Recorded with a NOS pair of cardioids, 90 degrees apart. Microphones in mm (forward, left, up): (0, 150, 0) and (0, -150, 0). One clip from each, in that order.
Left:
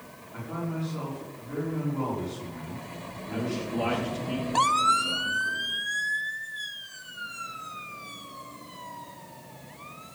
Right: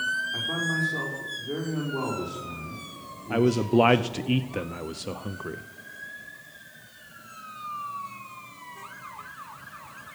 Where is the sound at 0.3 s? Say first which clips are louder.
Right 9 dB; 50° right, 5.5 m.